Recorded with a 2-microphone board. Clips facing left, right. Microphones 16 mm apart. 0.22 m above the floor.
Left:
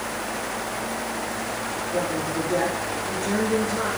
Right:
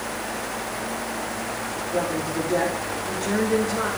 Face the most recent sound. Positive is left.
turn(degrees=-15)  # may be behind; listen again after turning